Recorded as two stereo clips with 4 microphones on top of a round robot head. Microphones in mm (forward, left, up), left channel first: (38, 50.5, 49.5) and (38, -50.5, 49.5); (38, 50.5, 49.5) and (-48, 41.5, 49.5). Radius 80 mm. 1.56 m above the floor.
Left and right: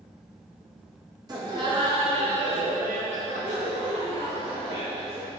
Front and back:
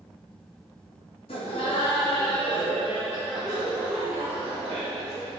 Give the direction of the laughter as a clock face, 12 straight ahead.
1 o'clock.